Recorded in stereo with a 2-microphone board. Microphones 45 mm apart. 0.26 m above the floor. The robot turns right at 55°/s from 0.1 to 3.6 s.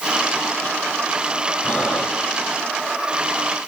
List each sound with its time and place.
1.6 s breathing: 30° left (ahead or behind), 6.5 m; by 2.6 s 20° right (ahead or behind), 6.5 m